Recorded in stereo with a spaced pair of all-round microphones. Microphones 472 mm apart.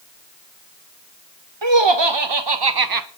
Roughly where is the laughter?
Right.